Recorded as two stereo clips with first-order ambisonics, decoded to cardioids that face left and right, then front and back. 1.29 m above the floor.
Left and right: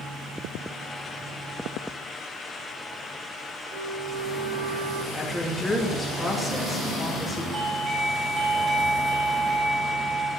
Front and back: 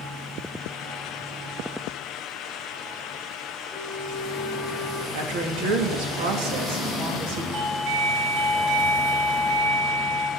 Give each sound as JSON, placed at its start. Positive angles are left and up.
{"t": 3.7, "sound": "a flute", "azimuth_deg": -85, "distance_m": 2.5}
{"t": 5.1, "sound": "a woman speaking", "azimuth_deg": 175, "distance_m": 2.5}
{"t": 7.5, "sound": "a doorbell", "azimuth_deg": -160, "distance_m": 2.5}